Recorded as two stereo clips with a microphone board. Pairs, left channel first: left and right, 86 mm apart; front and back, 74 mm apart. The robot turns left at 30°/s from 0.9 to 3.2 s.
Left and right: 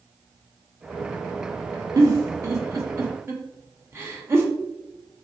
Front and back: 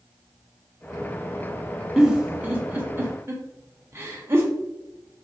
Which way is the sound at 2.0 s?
105° right.